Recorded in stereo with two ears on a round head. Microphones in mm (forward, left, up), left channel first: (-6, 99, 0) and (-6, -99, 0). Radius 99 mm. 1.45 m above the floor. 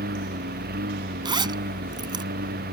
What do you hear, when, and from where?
0.0 s a lawn mower: 50° right (ahead or behind)
1.2 s a zipper: 20° right (ahead or behind)